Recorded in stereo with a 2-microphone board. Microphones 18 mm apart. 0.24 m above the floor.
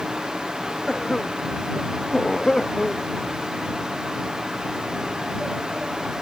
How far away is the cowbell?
No cowbell in this recording.